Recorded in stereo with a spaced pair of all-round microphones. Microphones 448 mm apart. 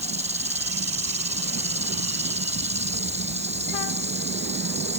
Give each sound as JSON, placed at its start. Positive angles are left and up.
{"t": 0.0, "sound": "an insect", "side_deg": -15}